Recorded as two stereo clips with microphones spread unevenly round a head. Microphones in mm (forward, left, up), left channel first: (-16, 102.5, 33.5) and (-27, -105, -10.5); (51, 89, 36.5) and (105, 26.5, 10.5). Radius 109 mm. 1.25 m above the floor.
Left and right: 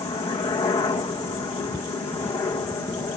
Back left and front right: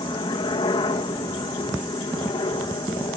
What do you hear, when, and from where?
0.0 s a helicopter: 155° left; by 3.2 s 160° left